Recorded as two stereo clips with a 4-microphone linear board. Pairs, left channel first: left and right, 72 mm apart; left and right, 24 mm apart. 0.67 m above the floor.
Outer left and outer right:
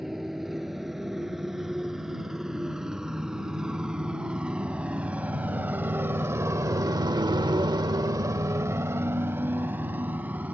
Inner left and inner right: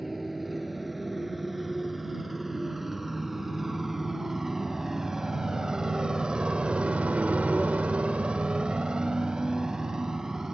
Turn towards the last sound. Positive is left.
turn(degrees=-20)  # may be behind; listen again after turning